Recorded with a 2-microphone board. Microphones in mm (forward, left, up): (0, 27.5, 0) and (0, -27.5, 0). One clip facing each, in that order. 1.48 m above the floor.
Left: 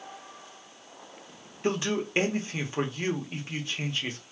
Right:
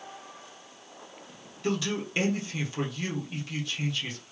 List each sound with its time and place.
1.6 s a man speaking: 30° left (ahead or behind), 1.0 m